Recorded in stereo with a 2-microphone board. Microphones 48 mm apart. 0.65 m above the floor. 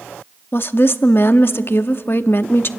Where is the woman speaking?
50° left (ahead or behind), 0.7 m.